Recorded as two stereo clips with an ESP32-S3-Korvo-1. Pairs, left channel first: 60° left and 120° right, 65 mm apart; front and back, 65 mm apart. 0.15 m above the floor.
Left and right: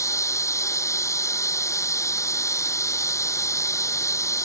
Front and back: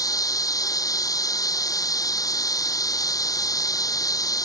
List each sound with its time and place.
0.0 s running water: 20° left